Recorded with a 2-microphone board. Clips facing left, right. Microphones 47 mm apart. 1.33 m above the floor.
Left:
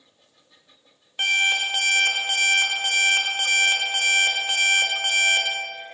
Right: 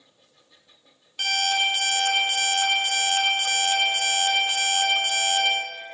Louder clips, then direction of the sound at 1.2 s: Left 2 dB; 30° left (ahead or behind).